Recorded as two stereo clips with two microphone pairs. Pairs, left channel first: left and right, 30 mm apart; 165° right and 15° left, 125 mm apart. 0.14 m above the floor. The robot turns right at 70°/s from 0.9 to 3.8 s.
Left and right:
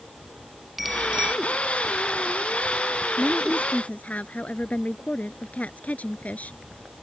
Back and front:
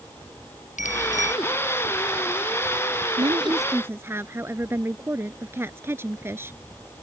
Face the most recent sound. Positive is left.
turn(degrees=85)